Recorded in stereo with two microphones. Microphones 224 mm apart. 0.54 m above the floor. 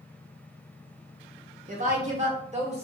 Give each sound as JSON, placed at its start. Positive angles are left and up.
{"t": 1.7, "sound": "a woman speaking", "side_deg": -35, "distance_m": 0.9}